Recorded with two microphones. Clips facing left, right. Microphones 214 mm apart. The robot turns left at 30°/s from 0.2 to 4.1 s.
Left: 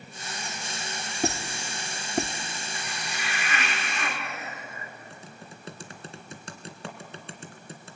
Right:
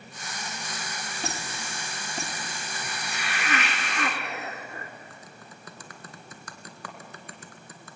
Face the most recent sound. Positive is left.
turn(degrees=30)  # may be behind; listen again after turning